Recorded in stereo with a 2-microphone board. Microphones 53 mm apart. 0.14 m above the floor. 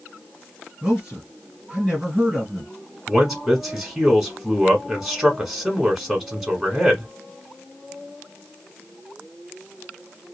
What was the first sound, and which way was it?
A man speaking, 15° right (ahead or behind).